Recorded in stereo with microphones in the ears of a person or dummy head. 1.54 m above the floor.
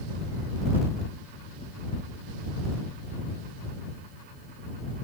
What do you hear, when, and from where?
Only background noise.